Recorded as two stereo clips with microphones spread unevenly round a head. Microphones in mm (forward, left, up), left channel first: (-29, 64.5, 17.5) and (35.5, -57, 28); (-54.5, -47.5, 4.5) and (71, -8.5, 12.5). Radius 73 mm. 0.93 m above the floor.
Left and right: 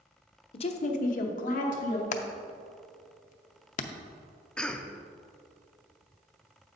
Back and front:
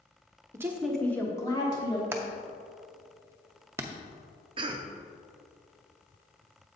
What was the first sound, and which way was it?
A woman speaking, 85° left.